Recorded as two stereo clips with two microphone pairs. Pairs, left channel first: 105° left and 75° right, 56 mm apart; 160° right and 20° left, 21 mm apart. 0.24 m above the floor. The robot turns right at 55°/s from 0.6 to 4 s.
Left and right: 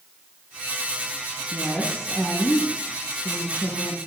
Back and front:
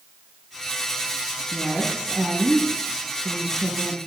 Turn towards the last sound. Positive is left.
turn(degrees=110)